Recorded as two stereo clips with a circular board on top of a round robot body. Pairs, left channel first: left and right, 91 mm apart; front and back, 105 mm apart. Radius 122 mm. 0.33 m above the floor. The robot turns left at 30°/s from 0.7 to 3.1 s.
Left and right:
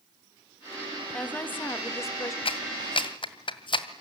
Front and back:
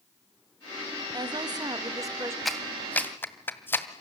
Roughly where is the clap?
Left.